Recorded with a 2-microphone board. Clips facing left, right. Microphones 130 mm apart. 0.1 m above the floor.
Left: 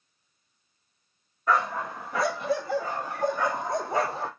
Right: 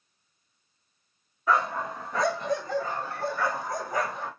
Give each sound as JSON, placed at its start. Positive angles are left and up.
{"t": 1.5, "sound": "a dog barking", "side_deg": 0, "distance_m": 3.0}